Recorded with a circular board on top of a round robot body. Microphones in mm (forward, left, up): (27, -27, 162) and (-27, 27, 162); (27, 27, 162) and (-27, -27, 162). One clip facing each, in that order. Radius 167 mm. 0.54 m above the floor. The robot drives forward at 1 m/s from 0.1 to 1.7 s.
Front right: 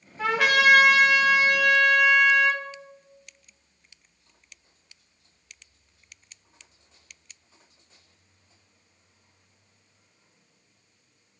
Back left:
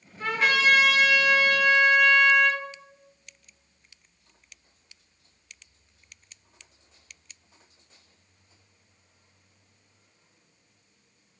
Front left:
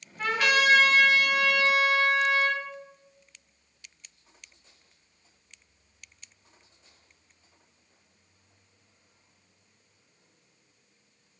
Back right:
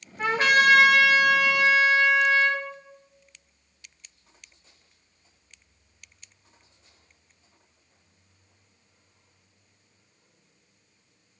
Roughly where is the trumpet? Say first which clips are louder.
Front right 3 dB, back right 4 dB; ahead right.